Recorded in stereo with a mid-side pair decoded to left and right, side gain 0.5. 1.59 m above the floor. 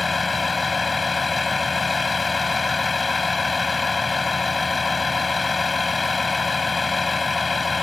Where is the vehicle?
20° left.